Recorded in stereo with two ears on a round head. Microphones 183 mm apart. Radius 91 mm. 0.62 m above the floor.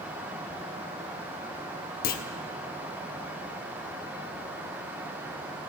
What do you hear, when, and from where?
2.0 s a clunk: 45° left (ahead or behind), 0.8 m